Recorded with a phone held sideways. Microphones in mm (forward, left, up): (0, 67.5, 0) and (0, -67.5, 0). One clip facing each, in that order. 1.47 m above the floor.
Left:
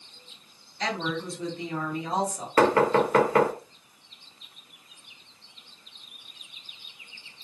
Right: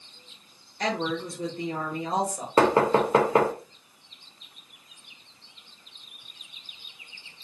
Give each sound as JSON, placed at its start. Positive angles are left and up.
{"t": 0.8, "sound": "a woman speaking", "side_deg": -50, "distance_m": 1.2}
{"t": 2.6, "sound": "knocking", "side_deg": -25, "distance_m": 0.5}